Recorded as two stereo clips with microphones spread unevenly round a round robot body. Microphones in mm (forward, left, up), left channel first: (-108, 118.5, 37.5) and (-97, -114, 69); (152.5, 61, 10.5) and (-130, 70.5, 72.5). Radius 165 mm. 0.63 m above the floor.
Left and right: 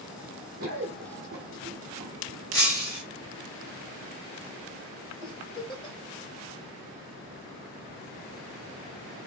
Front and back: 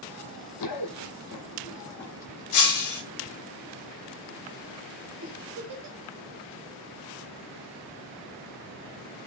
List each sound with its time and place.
0.6 s running footsteps: 35° right, 1.1 m; by 2.4 s 115° right, 0.7 m
2.5 s breaking glass: 15° left, 1.6 m
5.2 s a giggle: 165° left, 1.7 m